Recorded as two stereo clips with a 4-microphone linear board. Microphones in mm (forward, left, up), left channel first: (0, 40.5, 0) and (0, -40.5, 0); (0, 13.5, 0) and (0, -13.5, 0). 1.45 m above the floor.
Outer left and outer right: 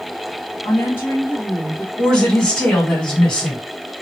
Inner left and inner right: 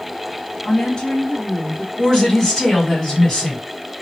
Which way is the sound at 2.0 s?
10° left (ahead or behind).